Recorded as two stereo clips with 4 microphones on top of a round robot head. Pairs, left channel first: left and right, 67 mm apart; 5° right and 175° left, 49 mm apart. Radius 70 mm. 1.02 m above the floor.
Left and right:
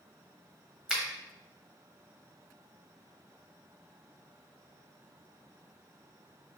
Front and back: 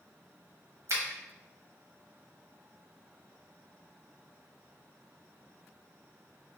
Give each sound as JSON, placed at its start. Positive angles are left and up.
{"t": 0.9, "sound": "a finger snap", "azimuth_deg": -170, "distance_m": 1.2}